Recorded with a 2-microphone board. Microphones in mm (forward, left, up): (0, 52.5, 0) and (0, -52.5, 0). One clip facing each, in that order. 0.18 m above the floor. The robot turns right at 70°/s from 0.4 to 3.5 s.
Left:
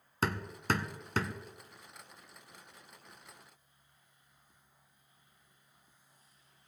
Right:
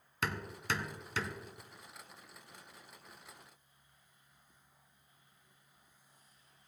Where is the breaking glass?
I don't hear breaking glass.